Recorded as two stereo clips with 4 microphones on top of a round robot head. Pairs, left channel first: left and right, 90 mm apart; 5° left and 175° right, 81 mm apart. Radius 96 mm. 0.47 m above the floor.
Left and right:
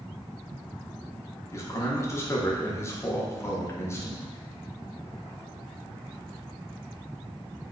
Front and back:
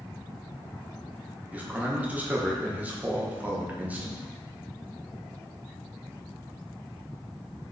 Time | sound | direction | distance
1.5 | a man speaking | 125° left | 0.8 m